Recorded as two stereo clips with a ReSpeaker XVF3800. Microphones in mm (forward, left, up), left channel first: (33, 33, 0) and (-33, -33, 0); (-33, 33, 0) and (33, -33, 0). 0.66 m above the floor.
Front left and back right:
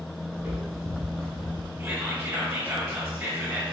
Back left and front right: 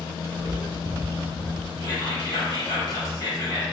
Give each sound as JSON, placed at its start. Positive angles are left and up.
{"t": 0.3, "sound": "footsteps", "azimuth_deg": 155, "distance_m": 1.4}
{"t": 1.8, "sound": "whispering", "azimuth_deg": 150, "distance_m": 1.7}